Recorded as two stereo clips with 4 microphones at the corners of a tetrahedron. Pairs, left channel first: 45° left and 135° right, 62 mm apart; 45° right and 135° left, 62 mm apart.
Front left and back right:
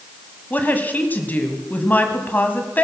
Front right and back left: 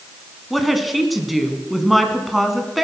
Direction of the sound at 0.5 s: 50° left.